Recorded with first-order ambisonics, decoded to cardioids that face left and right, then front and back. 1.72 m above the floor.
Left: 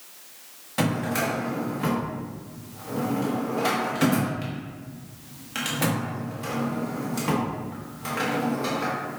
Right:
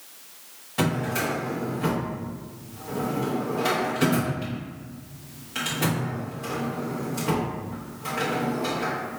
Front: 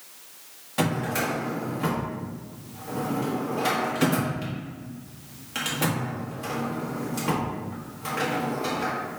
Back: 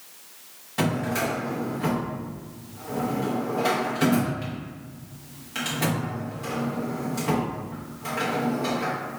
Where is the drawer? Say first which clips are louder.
Even, even; 65° left, 1.1 m.